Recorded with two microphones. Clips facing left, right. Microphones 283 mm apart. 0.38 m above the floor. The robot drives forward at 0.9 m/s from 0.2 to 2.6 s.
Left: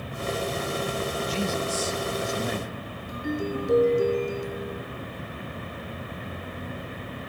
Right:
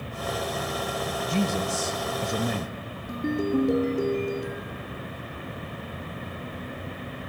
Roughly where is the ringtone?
Right.